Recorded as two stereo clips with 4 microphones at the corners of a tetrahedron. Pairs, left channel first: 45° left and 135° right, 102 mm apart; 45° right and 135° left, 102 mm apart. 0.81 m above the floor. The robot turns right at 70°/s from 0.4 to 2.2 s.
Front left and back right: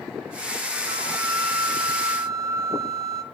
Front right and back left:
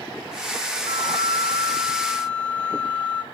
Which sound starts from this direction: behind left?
A flute, at 0.9 s.